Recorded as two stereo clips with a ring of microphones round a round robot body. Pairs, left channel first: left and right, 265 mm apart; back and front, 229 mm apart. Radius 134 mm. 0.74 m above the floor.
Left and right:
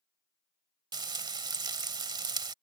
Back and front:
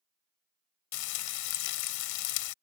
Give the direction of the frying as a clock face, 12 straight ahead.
5 o'clock.